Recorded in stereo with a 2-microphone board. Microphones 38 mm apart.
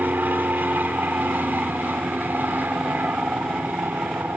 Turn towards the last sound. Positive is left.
turn(degrees=-55)  # may be behind; listen again after turning